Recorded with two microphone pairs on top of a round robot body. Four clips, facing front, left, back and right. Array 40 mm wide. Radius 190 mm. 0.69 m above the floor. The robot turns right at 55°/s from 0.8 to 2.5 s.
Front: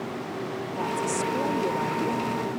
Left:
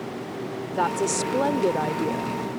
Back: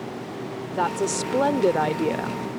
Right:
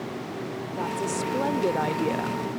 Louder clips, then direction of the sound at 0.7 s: Left 6 dB, back 4 dB; 135° left.